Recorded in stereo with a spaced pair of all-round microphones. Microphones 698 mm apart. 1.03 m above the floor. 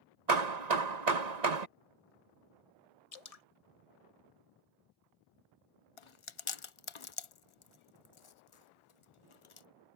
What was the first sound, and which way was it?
Hammering, 70° right (ahead or behind).